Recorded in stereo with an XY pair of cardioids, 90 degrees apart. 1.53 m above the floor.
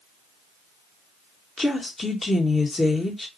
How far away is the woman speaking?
About 1.3 m.